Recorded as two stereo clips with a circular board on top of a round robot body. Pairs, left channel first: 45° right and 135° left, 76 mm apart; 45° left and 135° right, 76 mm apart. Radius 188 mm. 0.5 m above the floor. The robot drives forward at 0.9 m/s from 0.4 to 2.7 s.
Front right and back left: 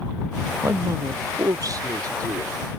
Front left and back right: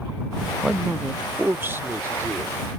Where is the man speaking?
140° left; by 2.6 s 170° left.